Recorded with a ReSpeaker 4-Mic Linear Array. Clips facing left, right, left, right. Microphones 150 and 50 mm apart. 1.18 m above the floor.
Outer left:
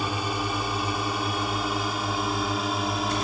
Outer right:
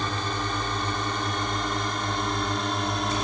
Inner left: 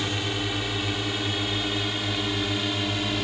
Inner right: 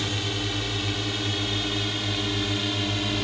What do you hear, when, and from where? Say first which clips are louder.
0.0 s a drone: outer left 1 dB, inner left 1 dB; 10° left (ahead or behind); by 3.2 s 5° left (ahead or behind)